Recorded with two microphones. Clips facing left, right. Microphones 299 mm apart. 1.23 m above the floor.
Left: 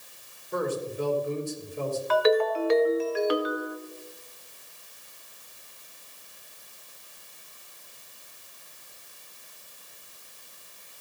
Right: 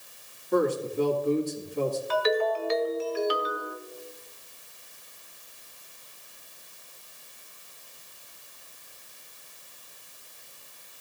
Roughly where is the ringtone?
Left.